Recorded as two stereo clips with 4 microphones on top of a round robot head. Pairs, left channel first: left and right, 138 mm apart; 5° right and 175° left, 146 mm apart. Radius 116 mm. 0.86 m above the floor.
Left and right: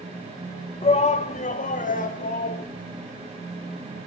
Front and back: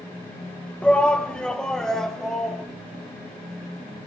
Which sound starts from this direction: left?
A shout, at 0.8 s.